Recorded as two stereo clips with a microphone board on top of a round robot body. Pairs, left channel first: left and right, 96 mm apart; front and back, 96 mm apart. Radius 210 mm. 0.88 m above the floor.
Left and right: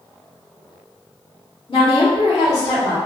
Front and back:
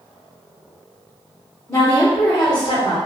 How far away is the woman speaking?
About 1.9 m.